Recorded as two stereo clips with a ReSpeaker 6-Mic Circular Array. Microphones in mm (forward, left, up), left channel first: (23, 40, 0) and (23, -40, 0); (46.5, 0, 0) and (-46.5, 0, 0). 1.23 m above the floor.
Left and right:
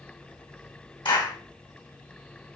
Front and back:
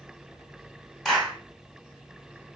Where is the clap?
85° left, 3.5 m.